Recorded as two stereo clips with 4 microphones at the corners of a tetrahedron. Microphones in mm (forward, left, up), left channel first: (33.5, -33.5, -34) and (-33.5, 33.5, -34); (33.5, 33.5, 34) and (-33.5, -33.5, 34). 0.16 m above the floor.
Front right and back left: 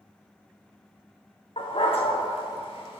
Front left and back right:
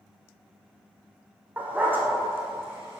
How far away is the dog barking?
About 2.5 m.